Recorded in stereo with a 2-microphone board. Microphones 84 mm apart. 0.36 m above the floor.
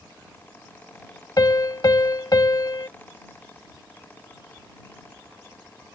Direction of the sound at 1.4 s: 50° left (ahead or behind).